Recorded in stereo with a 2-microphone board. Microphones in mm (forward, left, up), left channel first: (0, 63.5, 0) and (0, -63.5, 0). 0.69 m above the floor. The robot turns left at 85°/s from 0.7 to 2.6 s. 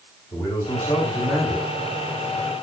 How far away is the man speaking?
About 2.5 m.